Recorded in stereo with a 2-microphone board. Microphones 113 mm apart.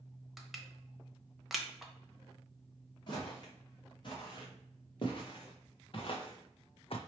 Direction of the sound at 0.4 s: Centre (ahead or behind).